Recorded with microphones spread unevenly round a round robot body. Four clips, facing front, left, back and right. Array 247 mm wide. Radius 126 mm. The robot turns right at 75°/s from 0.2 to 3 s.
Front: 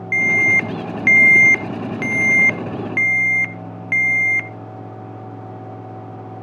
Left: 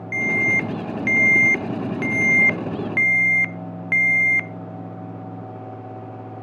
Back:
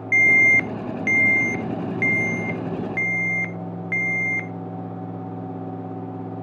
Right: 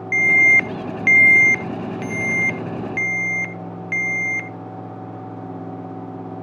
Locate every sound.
0.1 s an alarm: 135° right, 0.7 m; by 4.5 s 75° left, 0.7 m